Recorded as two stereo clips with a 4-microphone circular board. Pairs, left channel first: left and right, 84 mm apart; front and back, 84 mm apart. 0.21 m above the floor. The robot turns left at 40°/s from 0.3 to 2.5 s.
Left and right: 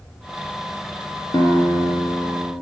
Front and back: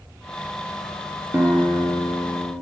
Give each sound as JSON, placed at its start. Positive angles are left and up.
{"t": 1.3, "sound": "a guitar", "azimuth_deg": 120, "distance_m": 2.0}